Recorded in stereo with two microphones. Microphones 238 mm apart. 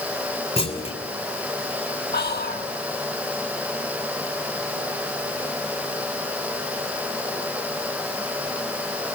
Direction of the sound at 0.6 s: 25° left (ahead or behind).